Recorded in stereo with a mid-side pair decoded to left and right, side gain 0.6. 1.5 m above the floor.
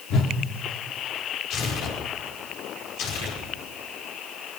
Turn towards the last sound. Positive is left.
turn(degrees=70)